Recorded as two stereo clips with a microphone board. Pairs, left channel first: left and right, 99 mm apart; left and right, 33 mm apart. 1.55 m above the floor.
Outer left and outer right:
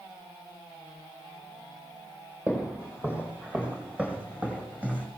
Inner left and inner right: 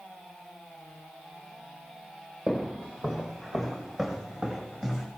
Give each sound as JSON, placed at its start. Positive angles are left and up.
{"t": 2.5, "sound": "footsteps", "side_deg": -15, "distance_m": 3.5}